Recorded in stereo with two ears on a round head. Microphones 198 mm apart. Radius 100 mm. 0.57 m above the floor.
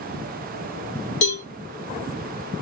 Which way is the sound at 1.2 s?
60° left (ahead or behind).